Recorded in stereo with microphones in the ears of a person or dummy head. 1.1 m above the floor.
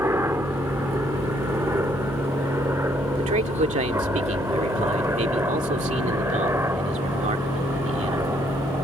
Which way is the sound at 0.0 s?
10° right (ahead or behind).